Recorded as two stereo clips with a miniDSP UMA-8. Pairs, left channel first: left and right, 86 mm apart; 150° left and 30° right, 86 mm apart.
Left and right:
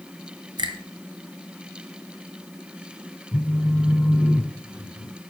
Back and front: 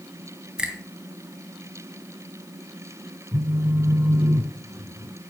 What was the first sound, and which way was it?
A finger snap, 110° right.